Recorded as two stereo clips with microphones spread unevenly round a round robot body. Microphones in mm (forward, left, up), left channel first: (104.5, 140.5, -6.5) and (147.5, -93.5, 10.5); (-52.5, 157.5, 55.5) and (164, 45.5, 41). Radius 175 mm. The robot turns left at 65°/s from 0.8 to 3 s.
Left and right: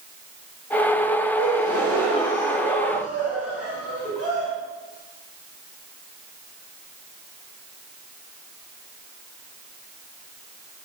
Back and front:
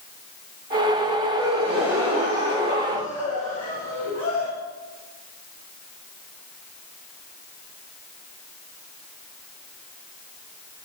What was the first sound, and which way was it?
A gasp, 75° right.